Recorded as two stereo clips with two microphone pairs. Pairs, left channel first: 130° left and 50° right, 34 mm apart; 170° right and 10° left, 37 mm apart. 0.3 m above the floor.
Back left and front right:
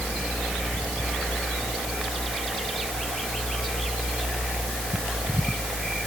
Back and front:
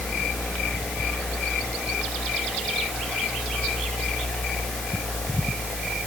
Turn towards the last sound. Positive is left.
No sound to turn to.